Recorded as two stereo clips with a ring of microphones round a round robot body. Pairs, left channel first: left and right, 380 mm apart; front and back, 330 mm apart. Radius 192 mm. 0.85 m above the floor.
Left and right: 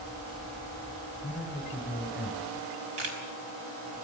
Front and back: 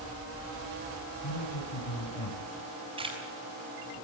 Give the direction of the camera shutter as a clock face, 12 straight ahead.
3 o'clock.